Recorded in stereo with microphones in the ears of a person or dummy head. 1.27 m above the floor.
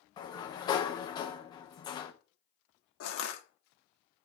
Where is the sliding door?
20° left (ahead or behind), 0.7 m.